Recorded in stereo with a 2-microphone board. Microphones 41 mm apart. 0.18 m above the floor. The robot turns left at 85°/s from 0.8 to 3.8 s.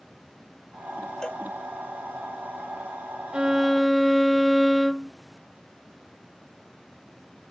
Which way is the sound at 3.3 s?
150° right.